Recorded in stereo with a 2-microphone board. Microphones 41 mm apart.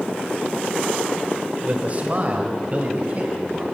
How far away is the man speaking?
About 1.8 m.